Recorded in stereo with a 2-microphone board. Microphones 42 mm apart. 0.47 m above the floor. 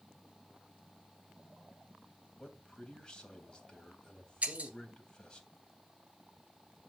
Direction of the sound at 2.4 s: 15° left (ahead or behind).